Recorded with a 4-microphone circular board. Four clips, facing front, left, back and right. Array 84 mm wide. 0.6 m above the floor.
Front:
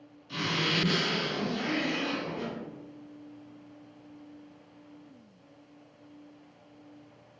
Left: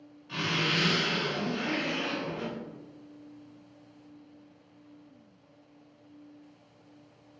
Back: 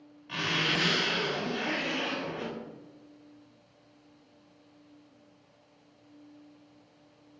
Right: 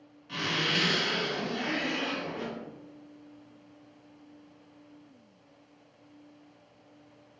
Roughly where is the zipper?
Behind.